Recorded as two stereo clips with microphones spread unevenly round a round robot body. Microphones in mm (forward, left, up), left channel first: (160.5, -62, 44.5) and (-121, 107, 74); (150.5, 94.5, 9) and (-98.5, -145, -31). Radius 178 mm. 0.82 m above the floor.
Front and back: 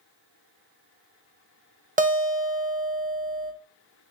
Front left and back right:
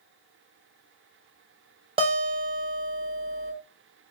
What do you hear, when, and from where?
2.0 s a guitar: 165° right, 0.7 m